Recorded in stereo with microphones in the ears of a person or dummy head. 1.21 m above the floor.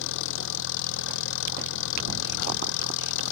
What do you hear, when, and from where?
0.0 s an engine running: 70° left (ahead or behind)